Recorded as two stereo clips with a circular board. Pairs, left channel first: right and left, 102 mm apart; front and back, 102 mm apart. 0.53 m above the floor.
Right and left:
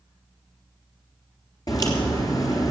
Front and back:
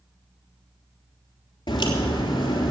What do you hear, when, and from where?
1.7 s a crack: 40° right, 3 m